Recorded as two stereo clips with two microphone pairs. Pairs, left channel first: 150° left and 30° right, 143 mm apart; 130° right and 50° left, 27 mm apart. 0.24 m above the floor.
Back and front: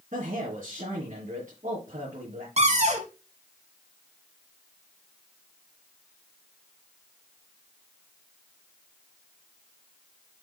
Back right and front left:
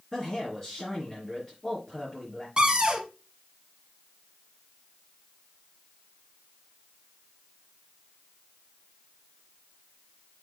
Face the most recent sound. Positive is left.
turn(degrees=-10)